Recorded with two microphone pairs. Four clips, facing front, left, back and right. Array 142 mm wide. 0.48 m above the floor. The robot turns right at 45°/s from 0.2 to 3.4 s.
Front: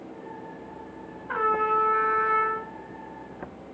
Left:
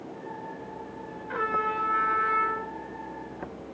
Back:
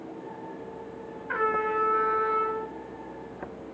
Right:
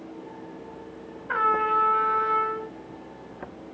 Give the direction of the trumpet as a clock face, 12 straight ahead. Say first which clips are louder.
Right 5 dB, front 3 dB; 2 o'clock.